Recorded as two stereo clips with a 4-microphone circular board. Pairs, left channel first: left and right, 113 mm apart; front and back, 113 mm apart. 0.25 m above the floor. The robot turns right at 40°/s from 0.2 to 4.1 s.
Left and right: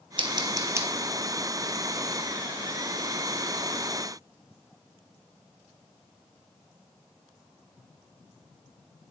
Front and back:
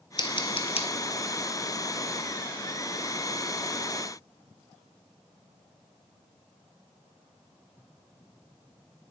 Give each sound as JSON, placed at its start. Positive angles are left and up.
{"t": 0.2, "sound": "scissors", "azimuth_deg": -50, "distance_m": 0.9}